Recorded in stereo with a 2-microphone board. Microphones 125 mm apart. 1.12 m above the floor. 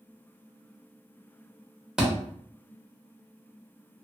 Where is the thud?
5° right (ahead or behind), 0.9 m.